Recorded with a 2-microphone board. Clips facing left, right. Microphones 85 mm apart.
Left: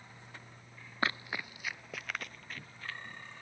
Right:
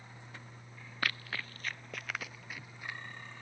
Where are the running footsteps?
25° left (ahead or behind); by 3.0 s 15° right (ahead or behind).